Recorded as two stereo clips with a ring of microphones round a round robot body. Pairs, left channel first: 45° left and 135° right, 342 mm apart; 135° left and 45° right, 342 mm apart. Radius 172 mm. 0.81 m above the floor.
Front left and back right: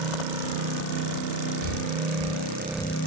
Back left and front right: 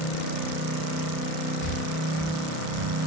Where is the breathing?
160° left, 3 m.